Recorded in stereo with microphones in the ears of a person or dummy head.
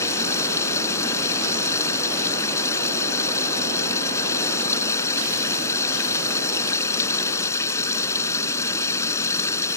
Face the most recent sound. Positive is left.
turn(degrees=20)  # may be behind; listen again after turning